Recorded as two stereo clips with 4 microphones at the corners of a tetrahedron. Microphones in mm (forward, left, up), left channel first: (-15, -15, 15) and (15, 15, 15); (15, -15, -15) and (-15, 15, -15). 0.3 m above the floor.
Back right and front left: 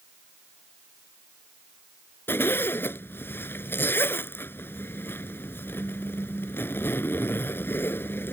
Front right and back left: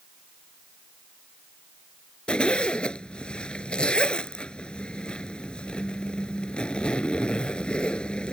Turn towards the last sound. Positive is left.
turn(degrees=-110)